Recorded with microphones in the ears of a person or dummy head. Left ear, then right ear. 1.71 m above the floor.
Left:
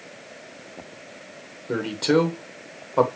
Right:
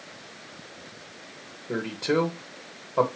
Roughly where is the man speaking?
Left.